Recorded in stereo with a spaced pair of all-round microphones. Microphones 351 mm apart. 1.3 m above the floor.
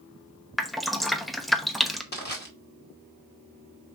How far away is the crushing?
About 2 m.